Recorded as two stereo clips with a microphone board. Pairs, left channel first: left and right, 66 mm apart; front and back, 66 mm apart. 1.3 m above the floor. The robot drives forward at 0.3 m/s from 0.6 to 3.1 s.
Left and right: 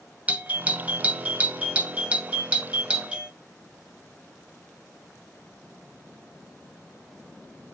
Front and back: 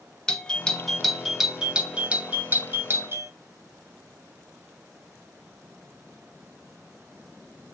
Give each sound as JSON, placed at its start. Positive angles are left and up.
{"t": 0.3, "sound": "a doorbell", "azimuth_deg": -60, "distance_m": 0.8}